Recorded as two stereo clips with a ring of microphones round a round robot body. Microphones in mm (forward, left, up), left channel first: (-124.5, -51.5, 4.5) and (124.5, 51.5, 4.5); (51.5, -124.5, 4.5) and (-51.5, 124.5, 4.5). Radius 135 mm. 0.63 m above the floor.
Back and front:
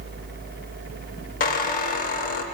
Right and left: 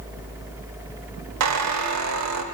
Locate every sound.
1.4 s a squeak: 140° left, 0.8 m